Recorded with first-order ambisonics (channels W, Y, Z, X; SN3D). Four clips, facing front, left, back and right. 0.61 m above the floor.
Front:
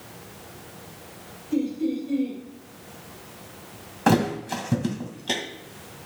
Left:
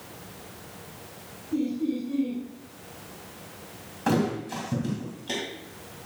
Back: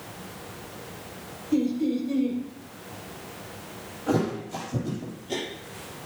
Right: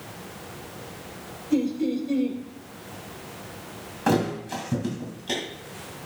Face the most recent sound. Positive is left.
turn(degrees=-10)